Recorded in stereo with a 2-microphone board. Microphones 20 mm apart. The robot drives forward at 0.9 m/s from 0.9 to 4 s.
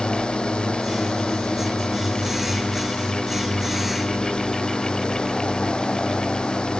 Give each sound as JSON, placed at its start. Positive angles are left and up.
{"t": 0.0, "sound": "a drone", "side_deg": 60}